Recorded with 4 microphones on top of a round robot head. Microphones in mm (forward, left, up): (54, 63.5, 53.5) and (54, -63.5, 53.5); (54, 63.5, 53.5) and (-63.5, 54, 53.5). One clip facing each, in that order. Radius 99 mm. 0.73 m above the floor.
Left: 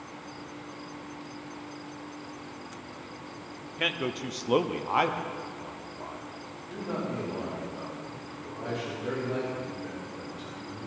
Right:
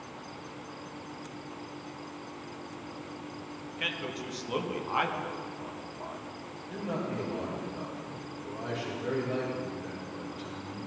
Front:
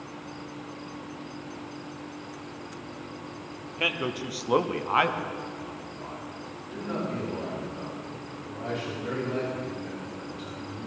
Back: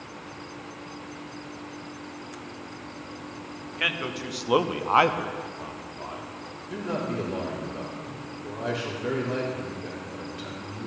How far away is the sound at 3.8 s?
About 1.1 m.